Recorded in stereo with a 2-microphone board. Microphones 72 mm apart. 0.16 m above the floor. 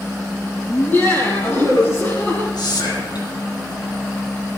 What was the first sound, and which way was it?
Laughter, 30° left (ahead or behind).